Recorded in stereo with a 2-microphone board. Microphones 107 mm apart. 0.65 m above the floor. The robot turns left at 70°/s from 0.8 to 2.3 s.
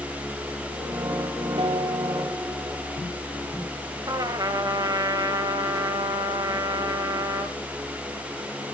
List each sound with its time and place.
1.6 s a piano: 120° right, 1.5 m; by 3.0 s 170° right, 1.5 m
4.1 s a trumpet: 40° right (ahead or behind), 1.9 m